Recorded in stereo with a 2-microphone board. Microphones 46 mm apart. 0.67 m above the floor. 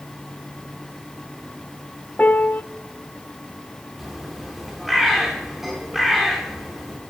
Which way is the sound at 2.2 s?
35° left (ahead or behind).